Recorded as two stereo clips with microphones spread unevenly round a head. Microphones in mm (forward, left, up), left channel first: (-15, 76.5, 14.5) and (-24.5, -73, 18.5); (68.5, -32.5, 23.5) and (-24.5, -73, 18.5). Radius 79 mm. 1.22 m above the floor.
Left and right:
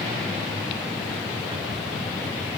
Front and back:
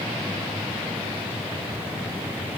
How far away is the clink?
I don't hear a clink.